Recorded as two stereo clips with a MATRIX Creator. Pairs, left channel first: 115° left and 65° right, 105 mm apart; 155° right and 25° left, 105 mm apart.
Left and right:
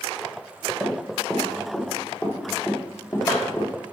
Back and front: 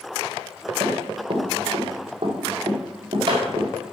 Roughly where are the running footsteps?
Ahead.